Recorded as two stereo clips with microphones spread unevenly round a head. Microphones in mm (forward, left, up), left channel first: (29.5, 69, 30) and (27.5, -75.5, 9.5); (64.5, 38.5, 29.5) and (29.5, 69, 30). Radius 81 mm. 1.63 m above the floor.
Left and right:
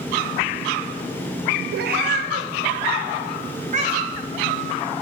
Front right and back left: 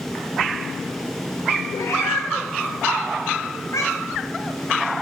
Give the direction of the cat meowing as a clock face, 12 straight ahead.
3 o'clock.